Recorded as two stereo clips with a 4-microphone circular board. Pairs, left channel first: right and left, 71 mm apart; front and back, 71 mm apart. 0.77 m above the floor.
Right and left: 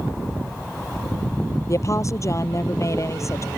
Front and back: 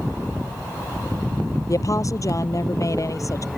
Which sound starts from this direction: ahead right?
A woman speaking, at 1.7 s.